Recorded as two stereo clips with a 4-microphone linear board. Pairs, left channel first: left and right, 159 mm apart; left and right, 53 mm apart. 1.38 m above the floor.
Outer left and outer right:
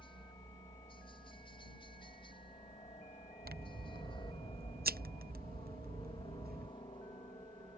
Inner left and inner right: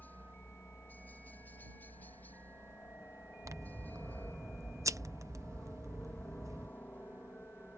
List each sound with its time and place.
0.0 s a helicopter: 30° left (ahead or behind)
3.5 s scissors: 75° right (ahead or behind)